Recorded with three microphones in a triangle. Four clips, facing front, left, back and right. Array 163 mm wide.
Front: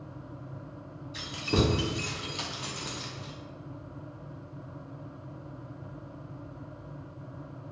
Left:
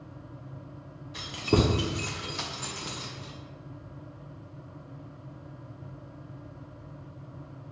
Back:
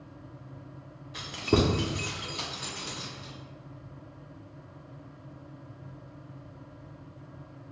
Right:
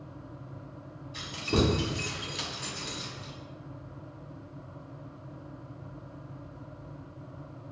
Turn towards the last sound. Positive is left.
turn(degrees=35)